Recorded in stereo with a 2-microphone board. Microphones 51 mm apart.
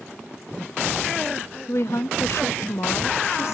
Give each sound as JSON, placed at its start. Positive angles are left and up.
{"t": 1.7, "sound": "a woman speaking", "side_deg": 60, "distance_m": 0.9}